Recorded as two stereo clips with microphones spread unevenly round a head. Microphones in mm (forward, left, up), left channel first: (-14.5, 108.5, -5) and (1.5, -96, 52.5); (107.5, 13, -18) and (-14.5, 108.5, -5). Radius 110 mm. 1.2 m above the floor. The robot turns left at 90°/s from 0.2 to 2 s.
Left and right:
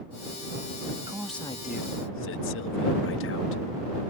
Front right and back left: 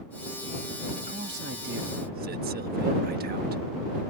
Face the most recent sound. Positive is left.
turn(degrees=120)